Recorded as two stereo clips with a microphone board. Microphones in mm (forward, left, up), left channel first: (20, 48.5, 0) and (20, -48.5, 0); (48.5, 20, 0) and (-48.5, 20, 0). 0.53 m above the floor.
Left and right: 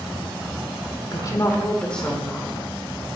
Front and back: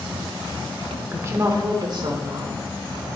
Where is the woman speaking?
120° left, 1.9 m; by 3.1 s 155° right, 3 m.